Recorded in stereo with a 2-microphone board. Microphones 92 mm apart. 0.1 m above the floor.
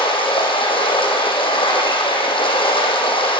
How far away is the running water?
About 4.5 m.